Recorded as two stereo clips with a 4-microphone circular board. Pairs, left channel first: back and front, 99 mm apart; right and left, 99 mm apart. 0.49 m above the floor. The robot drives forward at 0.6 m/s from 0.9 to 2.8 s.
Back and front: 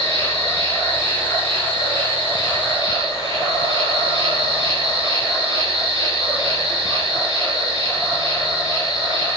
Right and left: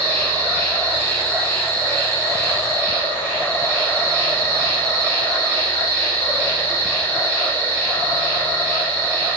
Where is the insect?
160° right, 4.5 m; by 9.4 s 165° right, 5.5 m.